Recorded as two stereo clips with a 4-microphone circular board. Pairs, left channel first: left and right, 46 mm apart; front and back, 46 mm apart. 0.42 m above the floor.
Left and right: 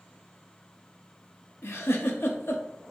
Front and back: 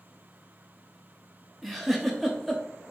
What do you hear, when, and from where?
1.6 s a giggle: 85° left, 0.6 m